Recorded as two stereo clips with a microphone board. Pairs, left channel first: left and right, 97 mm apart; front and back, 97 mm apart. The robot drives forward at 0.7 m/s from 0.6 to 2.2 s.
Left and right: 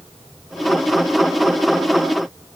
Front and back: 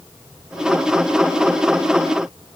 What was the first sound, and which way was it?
Only background noise.